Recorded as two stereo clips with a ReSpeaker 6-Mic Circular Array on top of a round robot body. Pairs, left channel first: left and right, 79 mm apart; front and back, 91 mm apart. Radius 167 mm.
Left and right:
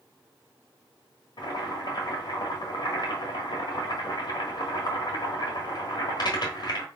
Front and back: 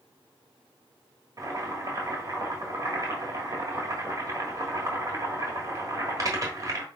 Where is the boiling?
125° left, 1.3 m.